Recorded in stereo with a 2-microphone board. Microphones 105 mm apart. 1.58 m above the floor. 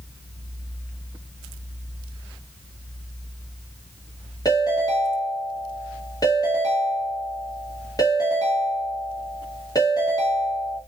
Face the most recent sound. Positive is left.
turn(degrees=35)  # may be behind; listen again after turning